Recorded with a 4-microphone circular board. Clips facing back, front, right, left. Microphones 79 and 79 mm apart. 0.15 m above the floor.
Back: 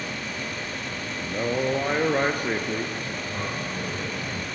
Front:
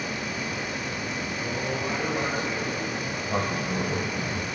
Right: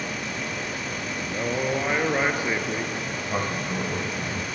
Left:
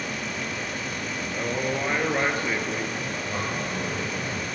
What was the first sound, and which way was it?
A man speaking, 165° right.